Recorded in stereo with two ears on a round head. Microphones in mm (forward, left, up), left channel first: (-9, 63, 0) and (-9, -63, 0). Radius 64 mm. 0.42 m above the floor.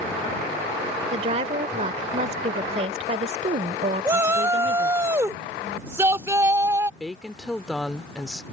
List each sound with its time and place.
1.1 s a woman speaking: 50° right (ahead or behind)
4.0 s a shout: 20° right (ahead or behind)
7.0 s a woman speaking: centre (ahead or behind)